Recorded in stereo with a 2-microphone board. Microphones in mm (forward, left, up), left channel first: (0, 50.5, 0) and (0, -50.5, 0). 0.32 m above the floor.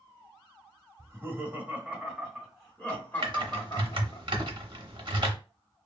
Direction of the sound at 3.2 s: 50° right (ahead or behind).